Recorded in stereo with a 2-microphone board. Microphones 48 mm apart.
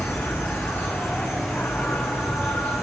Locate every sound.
0.0 s an insect: 60° left (ahead or behind), 2 m